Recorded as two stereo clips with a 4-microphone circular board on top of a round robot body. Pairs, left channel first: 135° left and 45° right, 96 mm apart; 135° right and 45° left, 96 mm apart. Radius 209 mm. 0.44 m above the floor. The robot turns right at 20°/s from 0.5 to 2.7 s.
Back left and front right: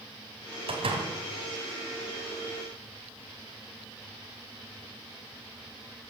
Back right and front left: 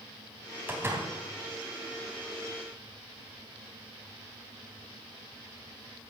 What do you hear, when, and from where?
0.7 s a door slam: 25° right, 3 m; by 1.1 s 15° right, 3 m